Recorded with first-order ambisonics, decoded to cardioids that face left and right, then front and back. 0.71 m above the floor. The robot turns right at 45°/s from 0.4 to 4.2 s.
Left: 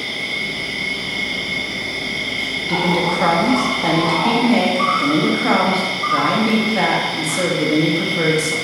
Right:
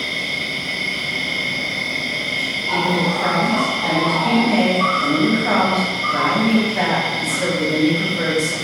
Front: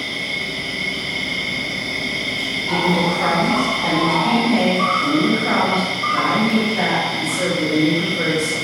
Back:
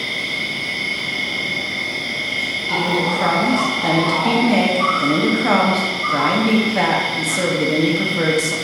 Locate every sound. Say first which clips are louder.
0.0 s an insect: even, back 1 dB; 125° right, 1.9 m; by 8.7 s 45° left, 1.9 m
2.7 s a woman speaking: left 1 dB, front 1 dB; 80° left, 0.7 m; by 8.6 s 145° left, 0.7 m